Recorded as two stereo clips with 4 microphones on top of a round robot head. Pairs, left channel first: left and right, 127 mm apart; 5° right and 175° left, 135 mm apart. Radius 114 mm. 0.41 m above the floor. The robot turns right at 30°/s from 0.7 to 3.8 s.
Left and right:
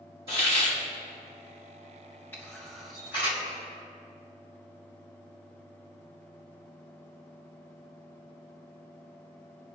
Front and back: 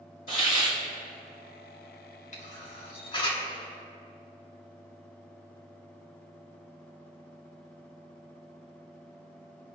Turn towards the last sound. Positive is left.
turn(degrees=60)